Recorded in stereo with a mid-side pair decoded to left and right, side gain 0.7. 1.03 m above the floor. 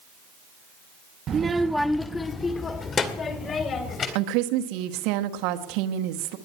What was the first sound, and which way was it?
A child speaking, 40° right.